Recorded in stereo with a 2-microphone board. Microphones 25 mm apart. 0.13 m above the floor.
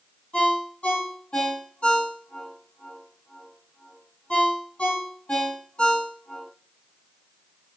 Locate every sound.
0.3 s a ringtone: 50° left (ahead or behind), 1.8 m